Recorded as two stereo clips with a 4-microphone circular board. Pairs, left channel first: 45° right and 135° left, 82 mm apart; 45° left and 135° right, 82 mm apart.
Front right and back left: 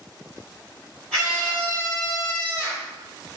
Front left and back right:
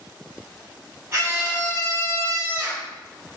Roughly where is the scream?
Behind right.